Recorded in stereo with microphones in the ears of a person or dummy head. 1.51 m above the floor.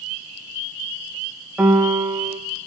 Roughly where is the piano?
Centre.